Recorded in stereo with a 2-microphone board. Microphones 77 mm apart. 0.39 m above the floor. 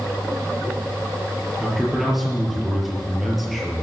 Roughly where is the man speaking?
Centre.